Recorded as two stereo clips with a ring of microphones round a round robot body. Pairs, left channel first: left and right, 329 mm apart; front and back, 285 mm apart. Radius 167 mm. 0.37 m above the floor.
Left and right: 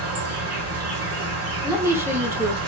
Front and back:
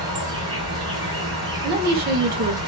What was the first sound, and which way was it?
An insect, 110° right.